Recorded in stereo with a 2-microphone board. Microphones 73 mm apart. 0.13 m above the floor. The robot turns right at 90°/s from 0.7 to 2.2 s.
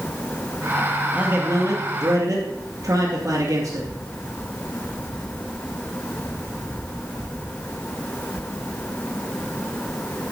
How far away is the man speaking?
About 2 m.